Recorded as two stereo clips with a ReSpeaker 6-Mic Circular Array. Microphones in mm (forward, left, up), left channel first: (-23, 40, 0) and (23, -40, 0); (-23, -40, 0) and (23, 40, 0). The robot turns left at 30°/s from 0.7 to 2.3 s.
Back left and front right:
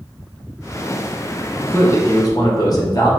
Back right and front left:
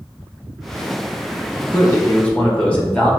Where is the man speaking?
Straight behind, 2 m; by 3.1 s 165° left, 2 m.